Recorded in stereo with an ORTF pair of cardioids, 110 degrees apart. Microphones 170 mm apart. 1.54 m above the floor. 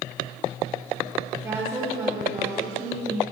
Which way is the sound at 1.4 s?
15° right.